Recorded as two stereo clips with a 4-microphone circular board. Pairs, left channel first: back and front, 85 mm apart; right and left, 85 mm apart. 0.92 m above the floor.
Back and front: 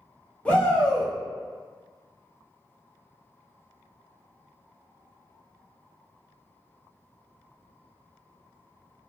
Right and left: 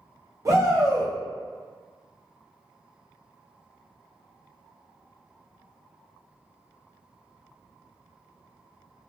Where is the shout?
110° left, 0.6 m.